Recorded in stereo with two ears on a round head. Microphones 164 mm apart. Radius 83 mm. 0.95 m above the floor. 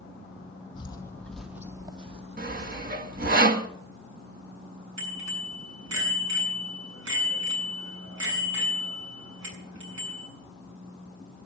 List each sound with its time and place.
0.8 s footsteps: 30° left (ahead or behind), 1.6 m; by 3.4 s 60° right (ahead or behind), 3 m
2.4 s sawing: 45° right (ahead or behind), 1.3 m
5.0 s a bicycle bell: 85° right, 7 m